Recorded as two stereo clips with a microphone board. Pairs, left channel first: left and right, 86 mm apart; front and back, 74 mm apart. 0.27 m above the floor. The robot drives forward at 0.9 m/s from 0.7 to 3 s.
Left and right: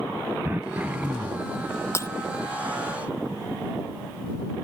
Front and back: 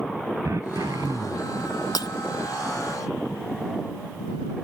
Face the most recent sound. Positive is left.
turn(degrees=40)